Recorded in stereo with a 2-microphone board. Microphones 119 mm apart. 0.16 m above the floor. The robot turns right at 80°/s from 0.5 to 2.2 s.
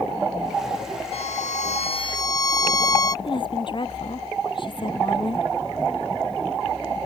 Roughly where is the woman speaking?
Left.